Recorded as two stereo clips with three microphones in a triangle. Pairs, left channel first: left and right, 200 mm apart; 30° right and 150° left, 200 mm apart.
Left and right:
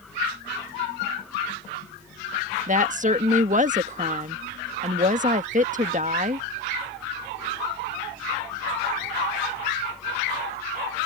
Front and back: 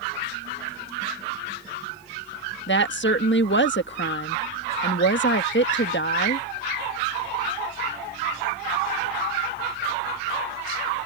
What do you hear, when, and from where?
2.7 s a woman speaking: 40° right